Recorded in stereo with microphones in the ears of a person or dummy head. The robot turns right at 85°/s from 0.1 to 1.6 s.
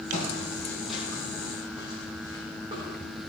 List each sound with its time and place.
0.1 s footsteps: 50° left (ahead or behind), 2.5 m; by 2.9 s 40° right (ahead or behind), 4.5 m